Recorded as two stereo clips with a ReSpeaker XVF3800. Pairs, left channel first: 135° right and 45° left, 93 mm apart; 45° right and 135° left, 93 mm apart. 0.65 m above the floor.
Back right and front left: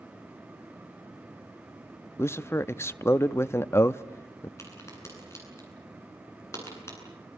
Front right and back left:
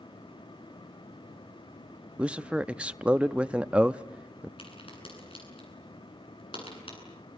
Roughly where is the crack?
Right.